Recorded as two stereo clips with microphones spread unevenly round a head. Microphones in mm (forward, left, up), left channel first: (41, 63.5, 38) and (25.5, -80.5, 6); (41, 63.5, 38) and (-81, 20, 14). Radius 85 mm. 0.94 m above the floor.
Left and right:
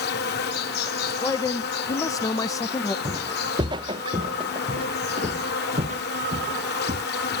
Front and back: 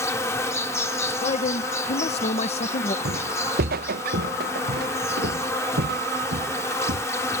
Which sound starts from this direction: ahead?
A man speaking, at 1.2 s.